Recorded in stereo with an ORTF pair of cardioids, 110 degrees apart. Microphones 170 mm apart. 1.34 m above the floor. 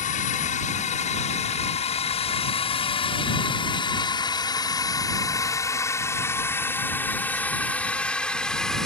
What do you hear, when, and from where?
0.0 s a drone: 50° left; by 8.9 s 5° left